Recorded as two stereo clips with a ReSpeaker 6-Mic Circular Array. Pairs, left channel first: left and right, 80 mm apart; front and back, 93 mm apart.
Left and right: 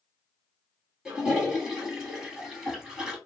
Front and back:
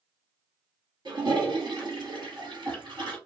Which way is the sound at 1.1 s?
170° right.